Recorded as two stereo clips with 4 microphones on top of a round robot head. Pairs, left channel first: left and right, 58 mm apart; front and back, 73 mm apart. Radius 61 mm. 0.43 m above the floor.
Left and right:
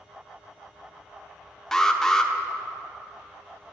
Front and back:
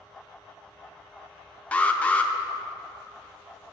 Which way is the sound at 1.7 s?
25° left.